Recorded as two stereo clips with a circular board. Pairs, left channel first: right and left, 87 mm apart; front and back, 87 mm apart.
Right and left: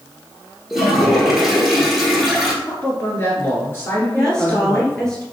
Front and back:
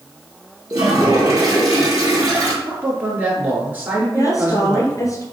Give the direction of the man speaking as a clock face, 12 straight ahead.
4 o'clock.